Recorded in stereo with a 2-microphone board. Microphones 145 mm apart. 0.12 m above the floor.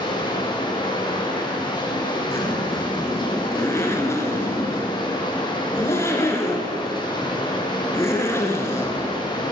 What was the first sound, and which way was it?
Running water, 30° left (ahead or behind).